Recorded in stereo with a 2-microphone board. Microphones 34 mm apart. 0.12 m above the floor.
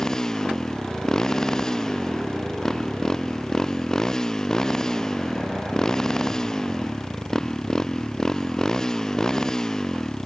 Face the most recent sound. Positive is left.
turn(degrees=15)  # may be behind; listen again after turning